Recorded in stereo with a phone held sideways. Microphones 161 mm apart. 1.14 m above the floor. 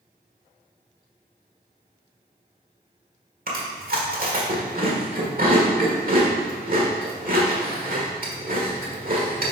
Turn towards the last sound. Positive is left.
turn(degrees=-60)  # may be behind; listen again after turning